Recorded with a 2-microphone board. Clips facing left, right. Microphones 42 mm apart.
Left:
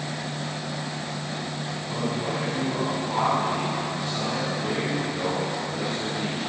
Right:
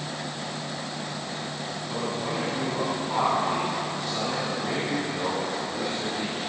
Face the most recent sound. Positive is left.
turn(degrees=-10)  # may be behind; listen again after turning